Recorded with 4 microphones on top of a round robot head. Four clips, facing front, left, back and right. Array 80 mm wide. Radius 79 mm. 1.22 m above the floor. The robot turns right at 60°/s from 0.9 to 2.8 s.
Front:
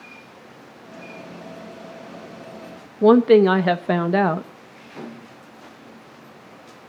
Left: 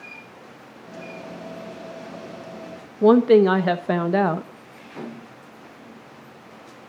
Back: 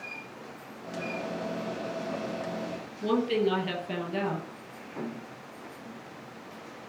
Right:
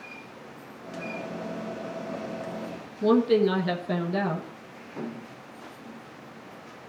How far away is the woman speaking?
About 1.1 m.